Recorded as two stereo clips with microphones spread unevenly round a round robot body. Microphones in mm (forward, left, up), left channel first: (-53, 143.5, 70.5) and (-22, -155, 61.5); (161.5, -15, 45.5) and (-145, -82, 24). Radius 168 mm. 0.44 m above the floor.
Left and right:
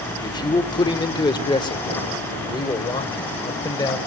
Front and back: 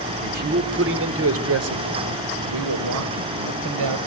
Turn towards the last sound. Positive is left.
turn(degrees=170)